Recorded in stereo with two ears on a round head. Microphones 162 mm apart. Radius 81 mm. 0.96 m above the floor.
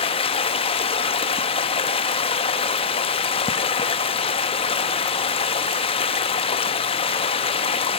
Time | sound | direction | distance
0.0 | running water | 30° left (ahead or behind) | 0.7 m